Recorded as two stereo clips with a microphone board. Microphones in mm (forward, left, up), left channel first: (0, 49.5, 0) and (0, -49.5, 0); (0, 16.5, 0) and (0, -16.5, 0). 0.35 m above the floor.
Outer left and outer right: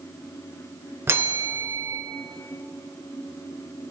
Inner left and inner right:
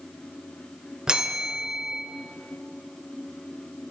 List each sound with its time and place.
1.1 s a bell: 25° right (ahead or behind), 0.6 m